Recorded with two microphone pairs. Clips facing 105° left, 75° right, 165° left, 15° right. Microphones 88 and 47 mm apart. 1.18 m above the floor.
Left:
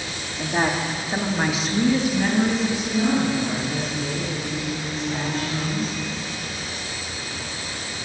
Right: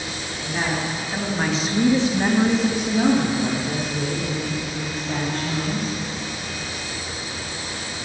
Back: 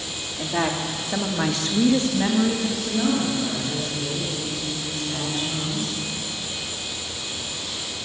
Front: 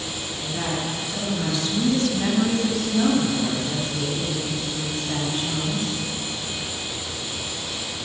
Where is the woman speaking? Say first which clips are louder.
Left 3 dB, back 4 dB; 145° left, 2.5 m; by 5.9 s 85° right, 6.5 m.